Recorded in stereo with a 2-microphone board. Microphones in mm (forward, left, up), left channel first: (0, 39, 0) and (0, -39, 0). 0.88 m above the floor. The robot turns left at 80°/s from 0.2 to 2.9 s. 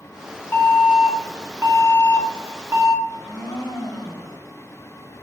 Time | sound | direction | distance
0.5 | an alarm | 45° left | 1.8 m
3.0 | a blender | centre (ahead or behind) | 3.5 m